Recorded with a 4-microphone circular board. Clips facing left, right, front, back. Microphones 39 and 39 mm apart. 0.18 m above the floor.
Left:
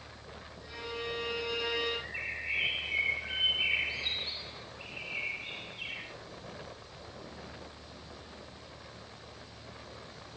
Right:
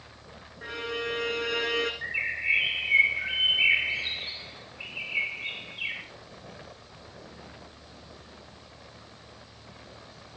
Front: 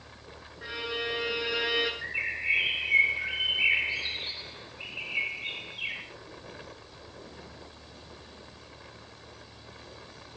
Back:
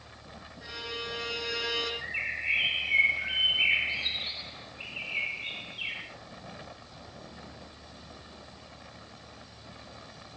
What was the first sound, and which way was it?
A violin, 70° right.